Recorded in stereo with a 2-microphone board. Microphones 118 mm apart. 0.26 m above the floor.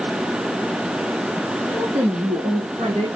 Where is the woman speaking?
45° right (ahead or behind), 4 m; by 3.1 s 55° right (ahead or behind), 3.5 m.